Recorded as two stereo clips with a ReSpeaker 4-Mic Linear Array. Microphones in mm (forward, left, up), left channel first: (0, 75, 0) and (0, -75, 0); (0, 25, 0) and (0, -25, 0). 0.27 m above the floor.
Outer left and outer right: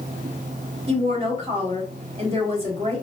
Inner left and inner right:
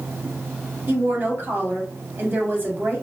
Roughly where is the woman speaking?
Right.